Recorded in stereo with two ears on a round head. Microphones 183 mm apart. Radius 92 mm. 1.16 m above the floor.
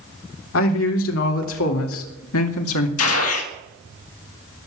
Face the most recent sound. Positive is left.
turn(degrees=80)